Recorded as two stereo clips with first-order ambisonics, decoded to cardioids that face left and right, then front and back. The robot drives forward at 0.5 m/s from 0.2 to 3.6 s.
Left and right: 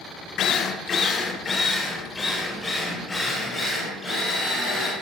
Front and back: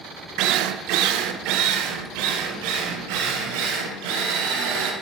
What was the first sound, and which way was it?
A drill, 145° left.